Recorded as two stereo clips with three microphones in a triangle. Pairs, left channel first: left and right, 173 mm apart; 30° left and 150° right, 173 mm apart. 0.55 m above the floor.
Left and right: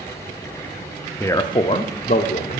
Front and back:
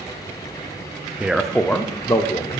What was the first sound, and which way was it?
A man speaking, 140° left.